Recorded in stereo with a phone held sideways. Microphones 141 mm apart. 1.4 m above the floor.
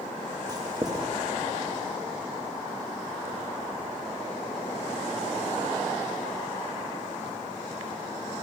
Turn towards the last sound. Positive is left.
turn(degrees=-30)  # may be behind; listen again after turning